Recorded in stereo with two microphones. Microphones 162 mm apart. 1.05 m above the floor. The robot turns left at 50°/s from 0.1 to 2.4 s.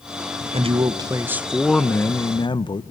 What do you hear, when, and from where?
0.5 s a man speaking: 125° right, 0.8 m; by 2.8 s 140° left, 0.8 m